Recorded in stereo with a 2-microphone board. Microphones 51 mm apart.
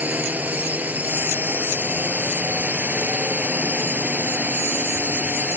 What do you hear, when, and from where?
0.0 s a drone: 30° right (ahead or behind)